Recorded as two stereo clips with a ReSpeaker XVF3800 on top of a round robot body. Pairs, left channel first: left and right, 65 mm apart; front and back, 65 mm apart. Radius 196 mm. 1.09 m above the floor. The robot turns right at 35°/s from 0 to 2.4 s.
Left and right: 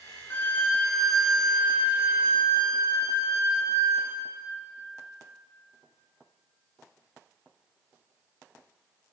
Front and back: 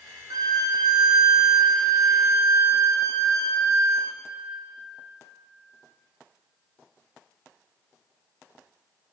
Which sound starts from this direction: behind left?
A violin, at 0.3 s.